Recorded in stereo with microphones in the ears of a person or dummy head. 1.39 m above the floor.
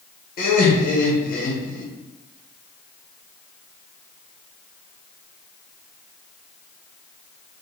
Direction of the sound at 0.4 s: 40° left (ahead or behind).